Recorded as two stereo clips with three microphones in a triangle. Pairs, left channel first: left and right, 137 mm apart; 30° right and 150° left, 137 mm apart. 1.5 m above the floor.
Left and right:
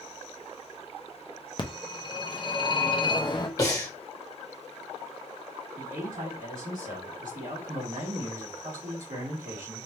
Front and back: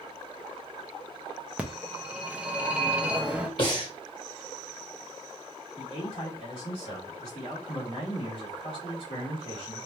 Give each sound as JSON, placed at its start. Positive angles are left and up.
{"t": 1.6, "sound": "a phone ringing", "azimuth_deg": 75, "distance_m": 0.7}
{"t": 3.6, "sound": "breathing", "azimuth_deg": 25, "distance_m": 1.5}
{"t": 5.8, "sound": "a man speaking", "azimuth_deg": -75, "distance_m": 2.5}